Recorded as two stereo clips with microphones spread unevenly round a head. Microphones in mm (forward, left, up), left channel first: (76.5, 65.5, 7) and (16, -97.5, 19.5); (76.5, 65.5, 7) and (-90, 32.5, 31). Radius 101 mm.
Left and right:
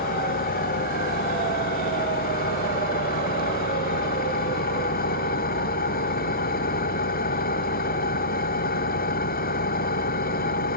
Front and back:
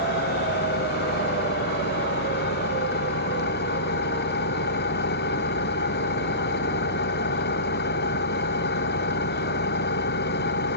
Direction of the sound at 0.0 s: 35° left.